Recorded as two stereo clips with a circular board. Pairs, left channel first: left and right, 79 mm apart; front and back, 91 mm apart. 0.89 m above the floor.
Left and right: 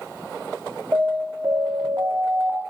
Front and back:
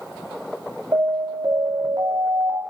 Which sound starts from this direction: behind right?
An alarm, at 0.9 s.